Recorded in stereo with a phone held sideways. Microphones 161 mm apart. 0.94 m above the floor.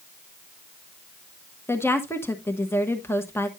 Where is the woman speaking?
15° left (ahead or behind), 1.1 m.